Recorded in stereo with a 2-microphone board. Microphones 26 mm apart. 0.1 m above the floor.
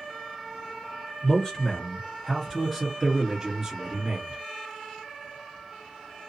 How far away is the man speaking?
About 1.8 m.